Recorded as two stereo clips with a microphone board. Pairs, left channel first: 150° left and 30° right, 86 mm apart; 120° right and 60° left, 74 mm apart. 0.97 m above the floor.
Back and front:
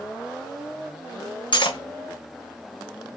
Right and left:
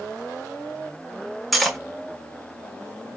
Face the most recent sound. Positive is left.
turn(degrees=150)